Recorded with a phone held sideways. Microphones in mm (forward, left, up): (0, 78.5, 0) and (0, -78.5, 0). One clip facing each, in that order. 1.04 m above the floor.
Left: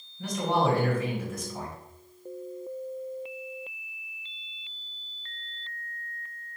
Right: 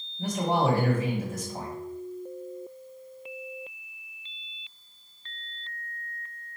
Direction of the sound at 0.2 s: 45° right (ahead or behind).